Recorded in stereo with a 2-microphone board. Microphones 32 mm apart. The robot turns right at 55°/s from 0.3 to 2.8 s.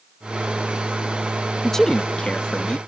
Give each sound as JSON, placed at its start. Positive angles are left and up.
{"t": 1.6, "sound": "a man speaking", "azimuth_deg": 20}